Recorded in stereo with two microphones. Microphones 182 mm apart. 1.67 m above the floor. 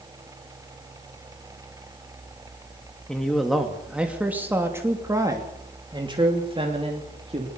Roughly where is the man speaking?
Centre.